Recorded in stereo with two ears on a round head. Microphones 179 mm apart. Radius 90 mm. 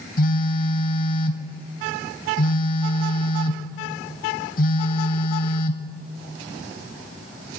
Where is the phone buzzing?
45° left (ahead or behind), 0.7 m.